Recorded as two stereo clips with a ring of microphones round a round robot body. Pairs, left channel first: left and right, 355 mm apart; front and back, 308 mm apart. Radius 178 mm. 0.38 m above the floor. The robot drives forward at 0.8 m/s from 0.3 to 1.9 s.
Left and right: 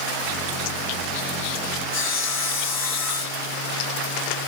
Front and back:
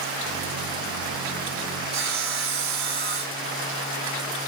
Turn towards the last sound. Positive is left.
turn(degrees=150)